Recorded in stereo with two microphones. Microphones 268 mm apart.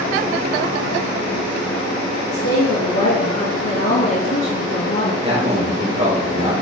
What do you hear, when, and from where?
2.3 s a woman speaking: 75° left (ahead or behind), 2.5 m; by 5.1 s 60° left (ahead or behind), 1.4 m
5.2 s a man speaking: 30° right (ahead or behind), 3 m